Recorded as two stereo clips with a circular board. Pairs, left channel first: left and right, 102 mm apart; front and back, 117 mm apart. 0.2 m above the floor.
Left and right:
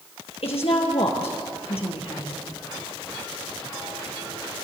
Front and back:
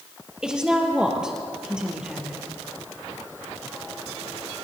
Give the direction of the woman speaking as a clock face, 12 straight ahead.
9 o'clock.